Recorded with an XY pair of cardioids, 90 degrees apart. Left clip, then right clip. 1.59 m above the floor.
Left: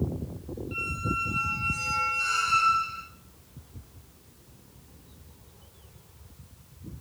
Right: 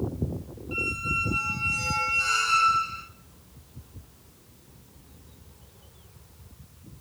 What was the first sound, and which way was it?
A squeak, 25° right.